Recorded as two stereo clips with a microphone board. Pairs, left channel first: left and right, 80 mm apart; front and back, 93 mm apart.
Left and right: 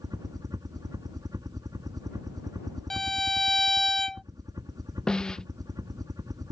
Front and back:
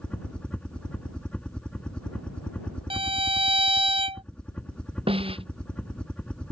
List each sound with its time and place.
0.0 s a helicopter: 75° right
2.9 s a violin: 175° left
5.1 s a snare drum: 170° left